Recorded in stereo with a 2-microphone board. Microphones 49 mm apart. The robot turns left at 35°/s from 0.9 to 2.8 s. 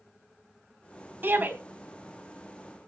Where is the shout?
50° right (ahead or behind), 3.5 m; by 1.5 s 40° right (ahead or behind), 3.5 m.